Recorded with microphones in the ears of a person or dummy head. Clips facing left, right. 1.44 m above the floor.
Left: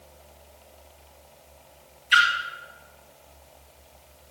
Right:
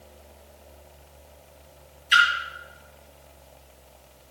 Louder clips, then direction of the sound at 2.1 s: Right 1 dB; 10° right (ahead or behind).